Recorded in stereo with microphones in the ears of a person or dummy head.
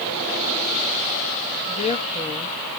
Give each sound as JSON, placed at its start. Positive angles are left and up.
{"t": 1.7, "sound": "a woman speaking", "side_deg": 30, "distance_m": 1.7}